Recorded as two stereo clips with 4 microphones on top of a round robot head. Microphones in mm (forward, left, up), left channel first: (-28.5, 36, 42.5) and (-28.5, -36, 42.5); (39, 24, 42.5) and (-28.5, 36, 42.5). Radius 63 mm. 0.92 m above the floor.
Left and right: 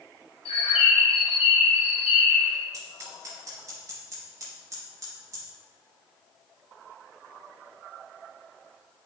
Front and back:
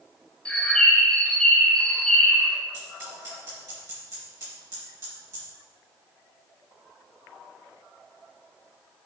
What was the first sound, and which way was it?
A bird, 65° left.